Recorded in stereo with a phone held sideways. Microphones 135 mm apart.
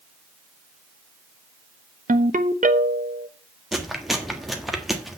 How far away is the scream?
I don't hear a scream.